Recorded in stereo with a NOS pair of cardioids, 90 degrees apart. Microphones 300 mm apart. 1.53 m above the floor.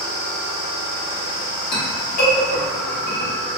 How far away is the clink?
About 1.5 m.